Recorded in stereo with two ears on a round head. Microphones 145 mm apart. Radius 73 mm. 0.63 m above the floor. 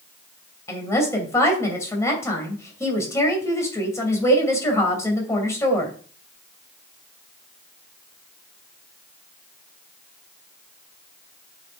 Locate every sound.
0.7 s a woman speaking: 20° left (ahead or behind), 2.5 m